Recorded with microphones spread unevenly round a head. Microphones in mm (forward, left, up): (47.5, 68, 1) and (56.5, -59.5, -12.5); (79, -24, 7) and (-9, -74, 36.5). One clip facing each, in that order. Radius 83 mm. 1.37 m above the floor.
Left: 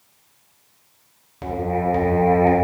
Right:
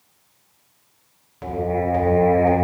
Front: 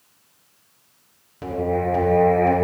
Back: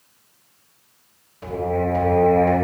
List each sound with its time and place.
1.4 s singing: 45° left, 1.4 m